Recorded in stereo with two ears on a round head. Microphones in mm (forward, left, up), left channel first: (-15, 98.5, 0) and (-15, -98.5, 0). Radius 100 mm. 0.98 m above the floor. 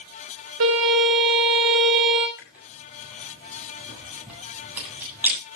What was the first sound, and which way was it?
A violin, 75° right (ahead or behind).